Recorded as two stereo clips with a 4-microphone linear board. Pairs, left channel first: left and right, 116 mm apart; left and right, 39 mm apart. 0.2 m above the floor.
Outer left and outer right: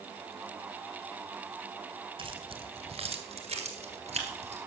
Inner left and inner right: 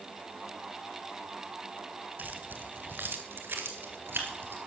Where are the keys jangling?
50° right (ahead or behind), 1.6 m; by 4.6 s 70° right (ahead or behind), 3 m.